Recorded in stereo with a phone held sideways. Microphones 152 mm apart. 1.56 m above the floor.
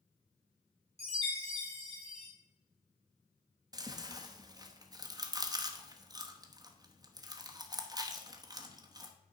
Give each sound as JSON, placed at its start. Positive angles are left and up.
{"t": 1.0, "sound": "a chime", "side_deg": -40, "distance_m": 3.5}
{"t": 3.7, "sound": "chewing", "side_deg": -25, "distance_m": 1.0}